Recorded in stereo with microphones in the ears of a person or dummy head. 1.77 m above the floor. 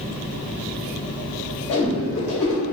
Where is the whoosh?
65° left (ahead or behind), 0.9 m.